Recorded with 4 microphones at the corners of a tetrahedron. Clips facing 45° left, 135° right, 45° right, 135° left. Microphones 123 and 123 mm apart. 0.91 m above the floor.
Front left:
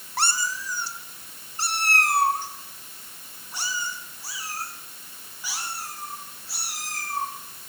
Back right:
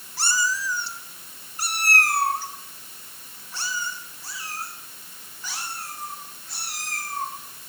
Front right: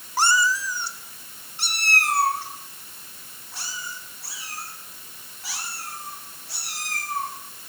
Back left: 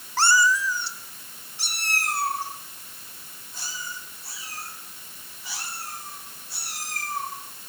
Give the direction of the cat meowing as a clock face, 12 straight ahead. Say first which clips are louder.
Back right 2 dB, back left 1 dB; 11 o'clock.